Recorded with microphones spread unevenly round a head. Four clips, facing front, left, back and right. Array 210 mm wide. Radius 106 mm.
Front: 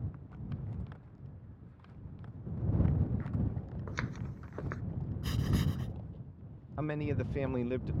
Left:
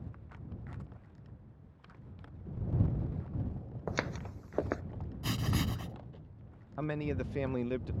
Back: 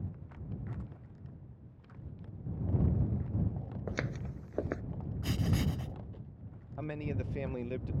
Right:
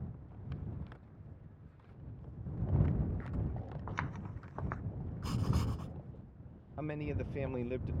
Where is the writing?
140° left.